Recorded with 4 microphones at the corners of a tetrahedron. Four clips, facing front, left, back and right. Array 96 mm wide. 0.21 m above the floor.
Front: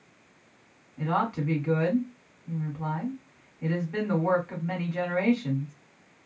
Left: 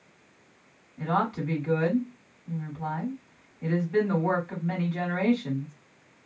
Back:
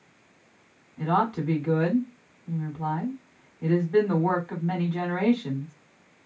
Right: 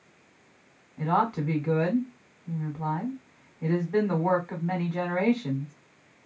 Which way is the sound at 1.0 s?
115° right.